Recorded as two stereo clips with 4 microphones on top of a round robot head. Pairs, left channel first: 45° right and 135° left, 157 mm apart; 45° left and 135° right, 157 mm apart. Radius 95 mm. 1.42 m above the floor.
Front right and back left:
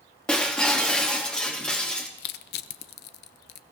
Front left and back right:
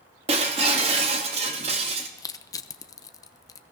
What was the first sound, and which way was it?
Breaking glass, 130° right.